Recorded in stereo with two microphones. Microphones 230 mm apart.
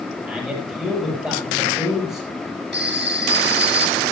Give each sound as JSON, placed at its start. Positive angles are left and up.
{"t": 0.2, "sound": "a man speaking", "side_deg": -5, "distance_m": 8.5}
{"t": 2.7, "sound": "a phone ringing", "side_deg": -45, "distance_m": 3.0}